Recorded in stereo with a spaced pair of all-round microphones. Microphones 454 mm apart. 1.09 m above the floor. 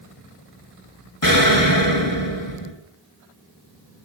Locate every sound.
1.2 s an explosion: 45° left (ahead or behind), 1.8 m